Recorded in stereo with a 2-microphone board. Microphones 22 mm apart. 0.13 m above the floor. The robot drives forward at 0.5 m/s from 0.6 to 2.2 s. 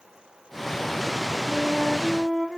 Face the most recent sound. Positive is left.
turn(degrees=-45)  # may be behind; listen again after turning